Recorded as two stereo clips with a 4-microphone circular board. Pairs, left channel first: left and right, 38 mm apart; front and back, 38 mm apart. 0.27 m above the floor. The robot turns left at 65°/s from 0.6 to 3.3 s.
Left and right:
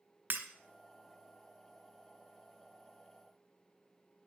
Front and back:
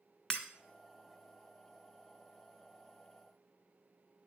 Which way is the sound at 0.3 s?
70° right.